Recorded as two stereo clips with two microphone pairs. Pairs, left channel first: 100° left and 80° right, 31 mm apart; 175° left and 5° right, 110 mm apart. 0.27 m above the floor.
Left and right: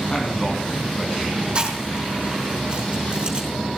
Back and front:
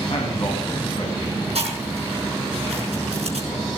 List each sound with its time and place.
0.1 s a man speaking: 160° left, 3 m
1.6 s chewing: 25° right, 4.5 m